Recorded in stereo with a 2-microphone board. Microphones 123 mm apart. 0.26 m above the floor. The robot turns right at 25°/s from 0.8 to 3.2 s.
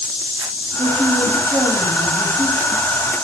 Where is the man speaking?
175° right, 1.6 m; by 2.7 s 130° right, 1.6 m.